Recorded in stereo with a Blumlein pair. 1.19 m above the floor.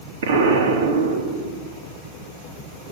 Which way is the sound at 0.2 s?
60° right.